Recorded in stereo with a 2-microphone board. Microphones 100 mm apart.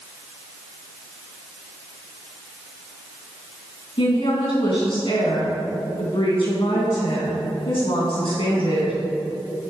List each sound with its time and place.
4.0 s a woman speaking: 55° left (ahead or behind), 3.5 m